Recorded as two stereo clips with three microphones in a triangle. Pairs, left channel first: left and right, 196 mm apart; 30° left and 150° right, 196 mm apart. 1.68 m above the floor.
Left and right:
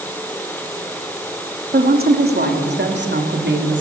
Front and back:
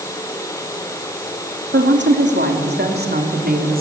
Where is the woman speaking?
130° right, 3 m; by 3.8 s 110° right, 3.5 m.